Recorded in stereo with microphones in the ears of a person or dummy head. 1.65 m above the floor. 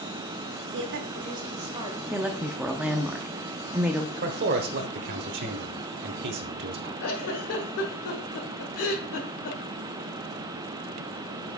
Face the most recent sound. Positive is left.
turn(degrees=65)  # may be behind; listen again after turning